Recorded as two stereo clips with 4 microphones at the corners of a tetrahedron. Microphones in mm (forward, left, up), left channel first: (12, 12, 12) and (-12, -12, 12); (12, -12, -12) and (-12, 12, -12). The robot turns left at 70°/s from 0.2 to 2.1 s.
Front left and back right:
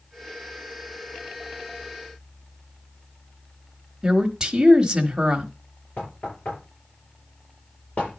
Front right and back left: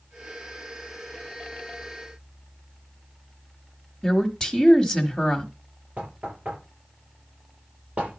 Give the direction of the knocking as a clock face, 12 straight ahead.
9 o'clock.